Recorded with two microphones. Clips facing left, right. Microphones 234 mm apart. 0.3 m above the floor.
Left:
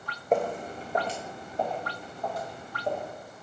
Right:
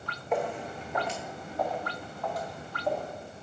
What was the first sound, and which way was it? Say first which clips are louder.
Footsteps: left 4 dB; 50° left (ahead or behind).